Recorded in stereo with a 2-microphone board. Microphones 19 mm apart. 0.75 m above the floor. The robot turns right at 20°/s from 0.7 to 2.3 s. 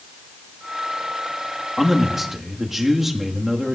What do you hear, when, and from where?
1.8 s a man speaking: 10° right (ahead or behind), 1.2 m; by 3.8 s 20° right (ahead or behind), 1.2 m